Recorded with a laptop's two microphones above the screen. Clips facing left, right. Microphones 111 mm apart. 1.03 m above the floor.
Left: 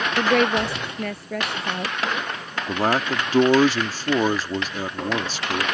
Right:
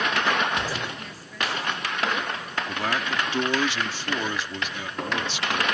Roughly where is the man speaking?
Left.